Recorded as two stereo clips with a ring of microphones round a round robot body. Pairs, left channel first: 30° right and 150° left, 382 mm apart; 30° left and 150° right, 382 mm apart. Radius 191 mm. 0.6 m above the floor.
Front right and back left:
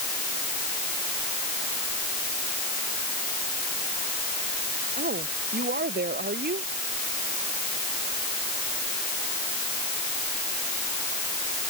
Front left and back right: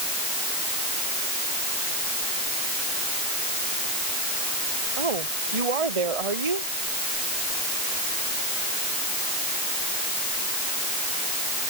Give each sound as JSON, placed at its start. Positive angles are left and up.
{"t": 5.0, "sound": "a woman speaking", "azimuth_deg": -145}